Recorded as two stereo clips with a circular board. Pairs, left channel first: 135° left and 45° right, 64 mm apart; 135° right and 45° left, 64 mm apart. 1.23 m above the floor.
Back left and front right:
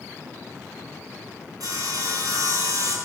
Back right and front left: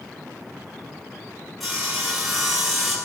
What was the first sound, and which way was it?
Sawing, 45° right.